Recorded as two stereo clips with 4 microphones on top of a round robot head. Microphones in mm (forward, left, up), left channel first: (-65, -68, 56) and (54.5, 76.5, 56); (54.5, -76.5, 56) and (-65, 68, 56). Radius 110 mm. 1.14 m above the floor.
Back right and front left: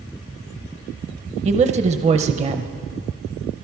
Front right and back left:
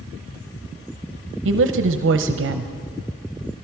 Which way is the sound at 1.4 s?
105° left.